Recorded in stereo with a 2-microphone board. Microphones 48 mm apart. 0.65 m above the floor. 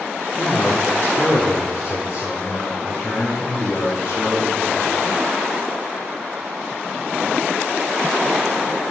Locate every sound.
0.4 s a man speaking: 60° left (ahead or behind), 1.3 m; by 5.0 s 80° left, 3.5 m